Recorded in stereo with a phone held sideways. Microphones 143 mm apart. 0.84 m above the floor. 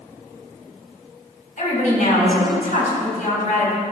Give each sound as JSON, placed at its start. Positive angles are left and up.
{"t": 1.6, "sound": "a woman speaking", "side_deg": 65, "distance_m": 4.5}